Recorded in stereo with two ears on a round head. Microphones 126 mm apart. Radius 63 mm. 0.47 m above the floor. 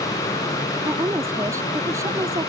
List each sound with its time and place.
0.8 s a woman speaking: 20° right (ahead or behind); by 2.5 s 25° right (ahead or behind)